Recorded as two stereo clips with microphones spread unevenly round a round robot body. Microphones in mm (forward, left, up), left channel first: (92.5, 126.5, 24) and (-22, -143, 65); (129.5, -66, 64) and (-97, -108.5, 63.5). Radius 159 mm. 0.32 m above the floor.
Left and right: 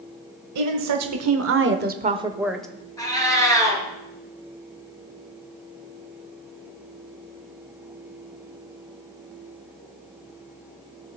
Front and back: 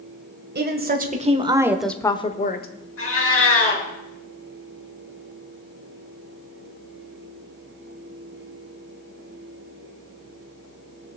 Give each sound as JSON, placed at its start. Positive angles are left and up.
{"t": 0.6, "sound": "a woman speaking", "azimuth_deg": -135, "distance_m": 1.6}
{"t": 3.0, "sound": "a cat meowing", "azimuth_deg": -10, "distance_m": 3.5}